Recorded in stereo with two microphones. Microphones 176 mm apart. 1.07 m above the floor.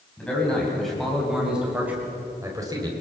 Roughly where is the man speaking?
Centre.